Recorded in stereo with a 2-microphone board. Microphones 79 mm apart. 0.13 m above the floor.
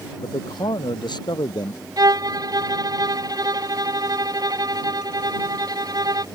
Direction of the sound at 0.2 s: 70° left (ahead or behind).